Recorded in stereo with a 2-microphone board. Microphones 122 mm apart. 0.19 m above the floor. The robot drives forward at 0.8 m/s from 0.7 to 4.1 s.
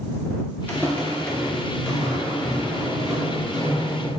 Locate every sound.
0.7 s footsteps: 15° left (ahead or behind), 0.9 m; by 4.1 s centre (ahead or behind), 5.5 m